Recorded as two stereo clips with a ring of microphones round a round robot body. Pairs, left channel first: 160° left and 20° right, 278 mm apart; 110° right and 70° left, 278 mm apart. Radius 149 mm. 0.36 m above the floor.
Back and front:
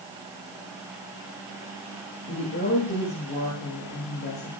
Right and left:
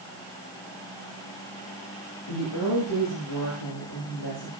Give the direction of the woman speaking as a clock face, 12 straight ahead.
5 o'clock.